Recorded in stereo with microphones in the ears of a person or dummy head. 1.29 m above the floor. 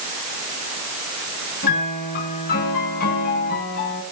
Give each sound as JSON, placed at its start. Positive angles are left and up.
{"t": 1.6, "sound": "a piano", "side_deg": 55, "distance_m": 9.5}